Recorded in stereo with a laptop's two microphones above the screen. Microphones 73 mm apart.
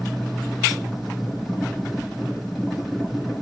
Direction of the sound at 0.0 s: Centre (ahead or behind).